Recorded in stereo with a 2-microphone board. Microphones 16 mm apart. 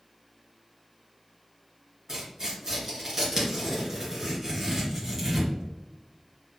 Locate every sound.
2.1 s tearing paper: 20° right (ahead or behind), 1.9 m